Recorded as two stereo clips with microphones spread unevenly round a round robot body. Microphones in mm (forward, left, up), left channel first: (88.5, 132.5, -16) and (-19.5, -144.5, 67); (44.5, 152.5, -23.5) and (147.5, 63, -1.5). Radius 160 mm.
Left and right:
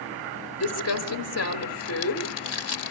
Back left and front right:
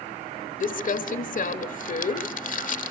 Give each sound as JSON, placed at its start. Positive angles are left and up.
{"t": 0.6, "sound": "crumpling", "azimuth_deg": 120, "distance_m": 1.0}